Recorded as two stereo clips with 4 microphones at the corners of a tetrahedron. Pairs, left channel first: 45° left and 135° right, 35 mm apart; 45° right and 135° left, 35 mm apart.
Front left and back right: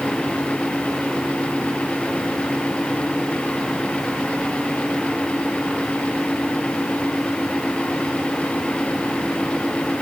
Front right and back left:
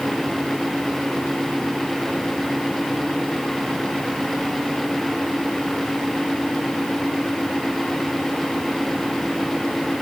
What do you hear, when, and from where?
Only background noise.